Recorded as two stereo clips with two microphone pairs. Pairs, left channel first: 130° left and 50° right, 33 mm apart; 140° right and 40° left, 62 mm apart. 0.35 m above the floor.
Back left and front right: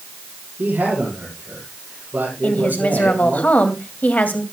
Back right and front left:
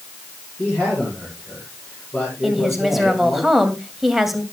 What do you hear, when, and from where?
0.6 s a man speaking: 75° right, 9 m
2.4 s a woman speaking: 120° left, 2.5 m